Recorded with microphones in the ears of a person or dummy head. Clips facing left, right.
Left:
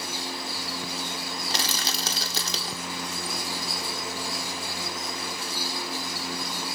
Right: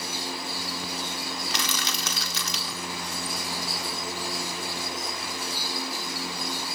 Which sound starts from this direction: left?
Crushing, at 1.5 s.